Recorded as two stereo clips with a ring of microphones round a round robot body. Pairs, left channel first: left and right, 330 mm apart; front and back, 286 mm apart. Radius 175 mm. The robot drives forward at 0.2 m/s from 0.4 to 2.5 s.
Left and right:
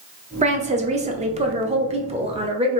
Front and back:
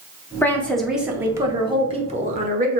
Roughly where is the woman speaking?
Right.